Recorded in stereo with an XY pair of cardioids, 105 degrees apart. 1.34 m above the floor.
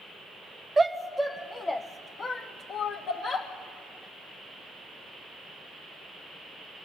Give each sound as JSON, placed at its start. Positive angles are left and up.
{"t": 0.8, "sound": "a shout", "azimuth_deg": -25, "distance_m": 0.7}